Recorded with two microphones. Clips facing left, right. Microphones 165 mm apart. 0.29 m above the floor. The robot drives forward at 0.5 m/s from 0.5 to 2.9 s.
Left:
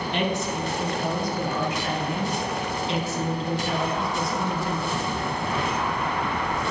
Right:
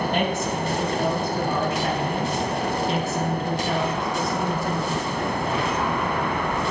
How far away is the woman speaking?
About 2.5 m.